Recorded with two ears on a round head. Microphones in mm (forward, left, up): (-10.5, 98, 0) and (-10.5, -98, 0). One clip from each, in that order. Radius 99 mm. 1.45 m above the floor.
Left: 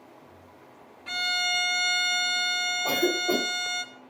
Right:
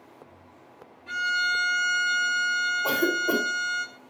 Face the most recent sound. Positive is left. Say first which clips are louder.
# right 1 dB
turn(degrees=-85)